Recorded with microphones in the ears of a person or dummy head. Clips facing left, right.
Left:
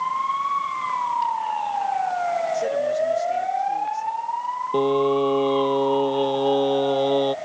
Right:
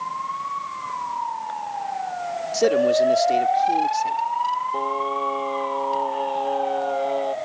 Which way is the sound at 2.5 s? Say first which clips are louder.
Right 9 dB; 80° right.